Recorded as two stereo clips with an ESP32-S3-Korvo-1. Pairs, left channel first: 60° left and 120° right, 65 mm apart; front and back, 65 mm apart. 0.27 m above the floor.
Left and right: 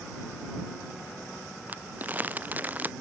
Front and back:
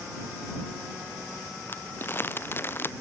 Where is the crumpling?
55° right.